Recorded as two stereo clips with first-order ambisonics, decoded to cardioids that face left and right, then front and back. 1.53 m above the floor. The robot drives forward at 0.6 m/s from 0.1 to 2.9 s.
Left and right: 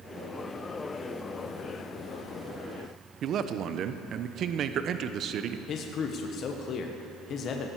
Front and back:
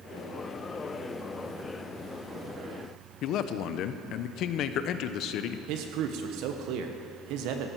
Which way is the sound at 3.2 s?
40° right.